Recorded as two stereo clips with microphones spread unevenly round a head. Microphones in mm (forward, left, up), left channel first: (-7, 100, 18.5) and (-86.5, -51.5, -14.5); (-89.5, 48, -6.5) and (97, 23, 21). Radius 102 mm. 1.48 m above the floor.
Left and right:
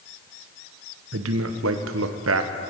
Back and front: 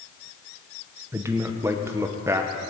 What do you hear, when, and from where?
1.1 s a man speaking: 85° right, 0.7 m